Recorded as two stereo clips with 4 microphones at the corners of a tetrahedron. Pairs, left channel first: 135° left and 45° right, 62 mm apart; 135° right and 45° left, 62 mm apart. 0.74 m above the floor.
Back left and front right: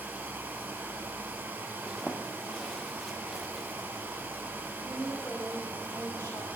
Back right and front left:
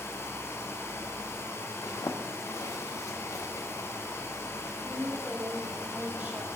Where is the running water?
100° right, 0.9 m.